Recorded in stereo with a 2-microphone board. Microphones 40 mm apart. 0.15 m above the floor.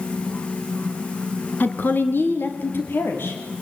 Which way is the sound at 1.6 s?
45° left (ahead or behind).